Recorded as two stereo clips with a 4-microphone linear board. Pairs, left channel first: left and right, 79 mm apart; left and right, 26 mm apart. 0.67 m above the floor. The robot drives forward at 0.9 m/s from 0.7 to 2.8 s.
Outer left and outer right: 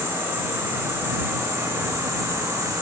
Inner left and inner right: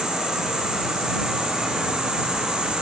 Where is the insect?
30° right (ahead or behind), 5.5 m; by 2.8 s 45° right (ahead or behind), 4 m.